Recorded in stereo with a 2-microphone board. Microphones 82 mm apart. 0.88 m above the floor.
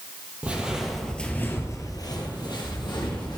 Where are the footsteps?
15° right (ahead or behind), 1.7 m; by 3.4 s 65° left (ahead or behind), 2.5 m.